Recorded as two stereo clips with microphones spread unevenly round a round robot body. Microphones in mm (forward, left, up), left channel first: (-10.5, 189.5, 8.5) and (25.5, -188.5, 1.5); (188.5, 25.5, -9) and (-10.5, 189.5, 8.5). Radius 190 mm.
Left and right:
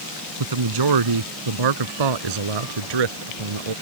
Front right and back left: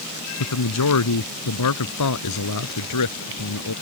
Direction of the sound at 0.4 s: 55° right.